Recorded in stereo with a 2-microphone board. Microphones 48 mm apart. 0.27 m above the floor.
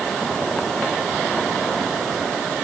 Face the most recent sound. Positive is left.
No sound to turn to.